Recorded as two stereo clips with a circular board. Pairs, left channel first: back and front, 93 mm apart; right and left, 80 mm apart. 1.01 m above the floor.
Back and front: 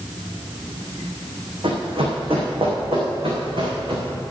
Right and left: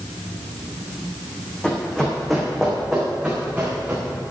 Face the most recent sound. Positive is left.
turn(degrees=25)